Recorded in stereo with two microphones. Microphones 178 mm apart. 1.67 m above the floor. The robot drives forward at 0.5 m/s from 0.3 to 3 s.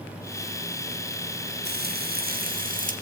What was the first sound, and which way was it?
Frying, 70° right (ahead or behind).